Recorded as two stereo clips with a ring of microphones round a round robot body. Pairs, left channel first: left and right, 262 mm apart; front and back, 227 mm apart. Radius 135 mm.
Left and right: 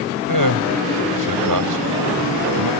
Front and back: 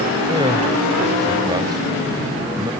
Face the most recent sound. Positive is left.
turn(degrees=-105)